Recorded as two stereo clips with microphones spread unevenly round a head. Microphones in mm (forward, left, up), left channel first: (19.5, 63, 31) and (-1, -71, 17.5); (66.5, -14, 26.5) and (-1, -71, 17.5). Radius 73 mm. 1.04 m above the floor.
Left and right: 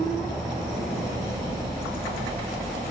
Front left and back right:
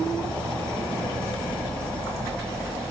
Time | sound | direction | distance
0.0 | an insect | 40° right | 3 m